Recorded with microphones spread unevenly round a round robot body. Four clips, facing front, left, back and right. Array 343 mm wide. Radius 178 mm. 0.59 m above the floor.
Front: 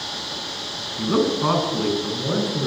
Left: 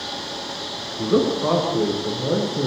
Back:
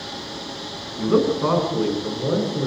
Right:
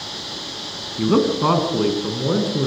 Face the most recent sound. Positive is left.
turn(degrees=-65)